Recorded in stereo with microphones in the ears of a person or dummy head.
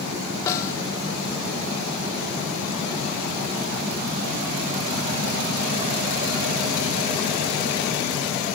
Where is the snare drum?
15° left (ahead or behind), 1.1 m.